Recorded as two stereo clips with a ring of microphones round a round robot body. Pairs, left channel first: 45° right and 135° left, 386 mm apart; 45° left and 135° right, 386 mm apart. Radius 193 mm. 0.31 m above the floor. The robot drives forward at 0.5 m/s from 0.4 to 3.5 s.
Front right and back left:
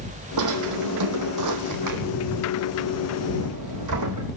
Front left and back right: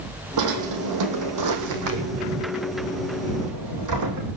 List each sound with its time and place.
0.4 s a drawer: straight behind, 3.5 m